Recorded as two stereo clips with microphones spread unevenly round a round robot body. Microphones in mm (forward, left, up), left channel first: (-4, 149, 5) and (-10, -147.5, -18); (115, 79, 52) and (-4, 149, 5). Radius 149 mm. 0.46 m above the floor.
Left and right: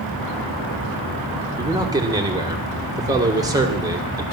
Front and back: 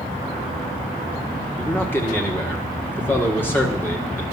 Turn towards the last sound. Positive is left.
turn(degrees=-135)